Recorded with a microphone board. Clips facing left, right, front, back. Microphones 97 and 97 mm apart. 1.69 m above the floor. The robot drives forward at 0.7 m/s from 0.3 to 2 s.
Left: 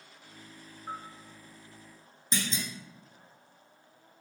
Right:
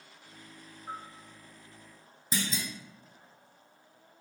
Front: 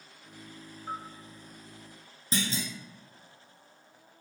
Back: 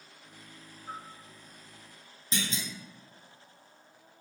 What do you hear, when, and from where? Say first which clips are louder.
0.9 s a bell: left 1 dB, front 4 dB; 40° left, 0.9 m; by 1.1 s 50° left, 0.8 m
2.3 s a clunk: even, front 3 dB; 10° right, 0.6 m